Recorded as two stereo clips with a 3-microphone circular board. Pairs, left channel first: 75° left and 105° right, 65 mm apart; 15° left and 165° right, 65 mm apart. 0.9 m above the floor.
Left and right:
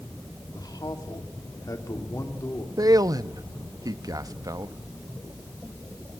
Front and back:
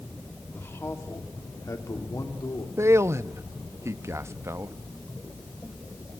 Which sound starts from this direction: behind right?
A man speaking, at 2.8 s.